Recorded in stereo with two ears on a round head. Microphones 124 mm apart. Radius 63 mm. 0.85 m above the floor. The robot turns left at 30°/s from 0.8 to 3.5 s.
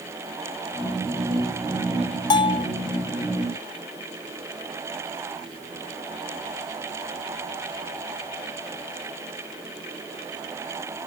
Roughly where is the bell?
Left.